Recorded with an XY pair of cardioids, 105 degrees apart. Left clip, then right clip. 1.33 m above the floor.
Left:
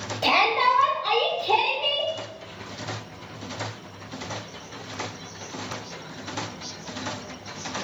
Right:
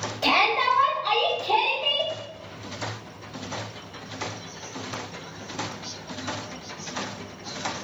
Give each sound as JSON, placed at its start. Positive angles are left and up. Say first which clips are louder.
{"t": 0.2, "sound": "a shout", "louder": "left 1 dB", "azimuth_deg": 20, "distance_m": 0.9}